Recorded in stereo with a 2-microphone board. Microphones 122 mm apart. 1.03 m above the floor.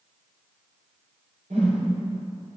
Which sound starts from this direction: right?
A whoosh, at 1.5 s.